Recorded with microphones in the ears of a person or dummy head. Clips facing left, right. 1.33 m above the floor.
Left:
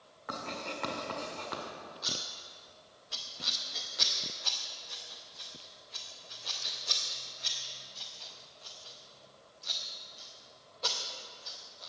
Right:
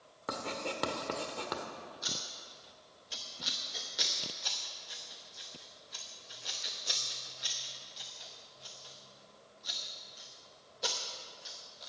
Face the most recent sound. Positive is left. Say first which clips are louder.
# left 2 dB
turn(degrees=-10)  # may be behind; listen again after turning